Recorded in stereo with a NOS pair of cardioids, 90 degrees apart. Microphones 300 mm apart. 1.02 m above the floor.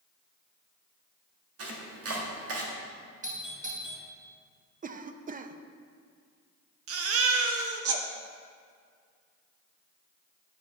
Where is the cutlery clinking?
I don't hear cutlery clinking.